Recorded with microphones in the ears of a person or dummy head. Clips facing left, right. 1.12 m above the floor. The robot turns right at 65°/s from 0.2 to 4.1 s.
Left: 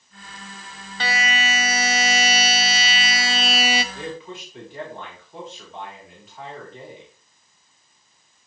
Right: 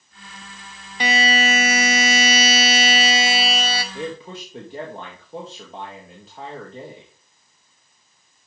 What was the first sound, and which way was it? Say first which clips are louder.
A buzzer: right 5 dB; 165° right.